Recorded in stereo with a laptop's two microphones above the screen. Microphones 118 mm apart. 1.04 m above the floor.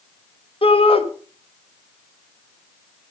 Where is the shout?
50° left (ahead or behind), 1.7 m.